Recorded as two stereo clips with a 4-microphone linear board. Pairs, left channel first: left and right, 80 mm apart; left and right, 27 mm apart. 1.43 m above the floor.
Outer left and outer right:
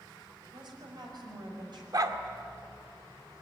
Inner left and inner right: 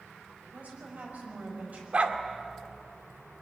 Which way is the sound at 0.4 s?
75° right (ahead or behind).